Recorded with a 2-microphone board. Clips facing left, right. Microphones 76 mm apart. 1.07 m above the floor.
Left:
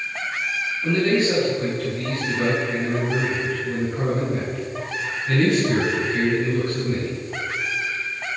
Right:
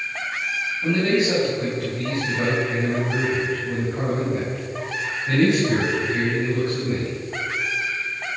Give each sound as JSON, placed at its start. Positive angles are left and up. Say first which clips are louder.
{"t": 0.8, "sound": "a man speaking", "louder": "left 1 dB", "side_deg": -25, "distance_m": 6.0}